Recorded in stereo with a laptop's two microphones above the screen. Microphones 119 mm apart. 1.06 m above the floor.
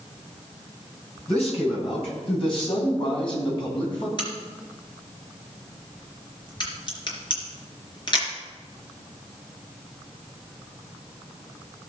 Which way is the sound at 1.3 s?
55° left (ahead or behind).